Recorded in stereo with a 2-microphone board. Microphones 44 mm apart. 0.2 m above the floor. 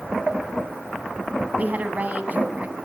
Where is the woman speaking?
40° right (ahead or behind), 1.5 m.